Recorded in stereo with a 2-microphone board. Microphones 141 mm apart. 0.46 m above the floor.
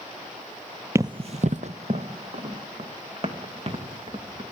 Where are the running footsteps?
20° right (ahead or behind), 0.6 m; by 4.4 s 40° right (ahead or behind), 4.5 m.